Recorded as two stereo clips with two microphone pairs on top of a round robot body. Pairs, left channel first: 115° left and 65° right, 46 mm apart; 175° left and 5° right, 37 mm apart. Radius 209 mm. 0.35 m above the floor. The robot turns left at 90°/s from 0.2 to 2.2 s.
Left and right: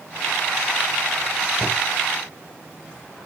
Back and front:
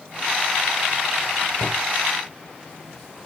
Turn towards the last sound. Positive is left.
turn(degrees=160)